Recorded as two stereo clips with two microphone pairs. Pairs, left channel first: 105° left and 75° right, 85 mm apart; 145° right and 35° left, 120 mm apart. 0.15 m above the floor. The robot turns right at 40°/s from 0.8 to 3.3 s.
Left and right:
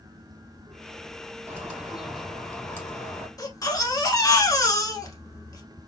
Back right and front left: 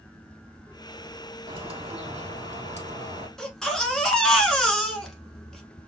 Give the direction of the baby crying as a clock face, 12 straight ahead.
8 o'clock.